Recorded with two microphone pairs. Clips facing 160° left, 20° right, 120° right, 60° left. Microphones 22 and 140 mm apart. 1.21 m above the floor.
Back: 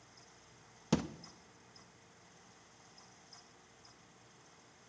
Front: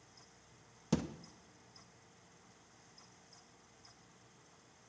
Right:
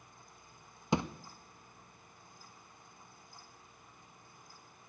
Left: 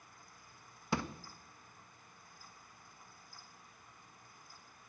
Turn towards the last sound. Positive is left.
turn(degrees=-170)